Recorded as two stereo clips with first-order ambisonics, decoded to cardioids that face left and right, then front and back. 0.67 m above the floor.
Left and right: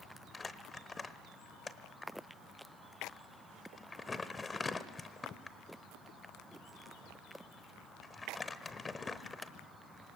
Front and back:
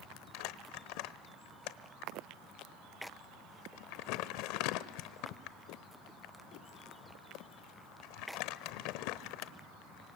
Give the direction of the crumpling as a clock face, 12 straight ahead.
12 o'clock.